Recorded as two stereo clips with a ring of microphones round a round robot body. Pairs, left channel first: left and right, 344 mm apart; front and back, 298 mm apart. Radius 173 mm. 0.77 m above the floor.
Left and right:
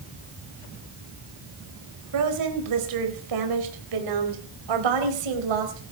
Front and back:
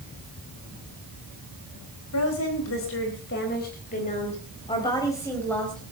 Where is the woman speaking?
50° right, 4 m; by 5.8 s 90° right, 4 m.